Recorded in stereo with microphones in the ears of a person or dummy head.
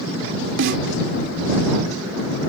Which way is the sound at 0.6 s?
65° right (ahead or behind).